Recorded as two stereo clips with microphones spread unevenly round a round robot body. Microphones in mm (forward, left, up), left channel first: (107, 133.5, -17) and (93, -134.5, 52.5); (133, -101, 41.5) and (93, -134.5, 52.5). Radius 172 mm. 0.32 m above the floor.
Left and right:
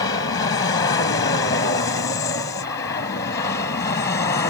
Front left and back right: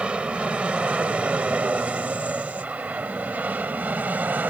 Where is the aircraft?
145° left; by 4.5 s 155° left.